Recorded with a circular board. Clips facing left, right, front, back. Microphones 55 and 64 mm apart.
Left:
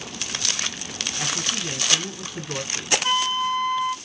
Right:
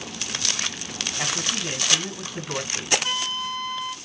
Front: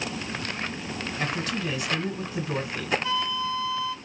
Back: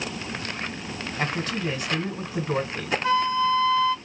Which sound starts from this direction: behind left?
A flute, at 3.0 s.